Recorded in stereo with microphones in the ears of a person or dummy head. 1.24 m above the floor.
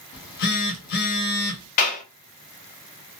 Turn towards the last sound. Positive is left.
turn(degrees=45)  # may be behind; listen again after turning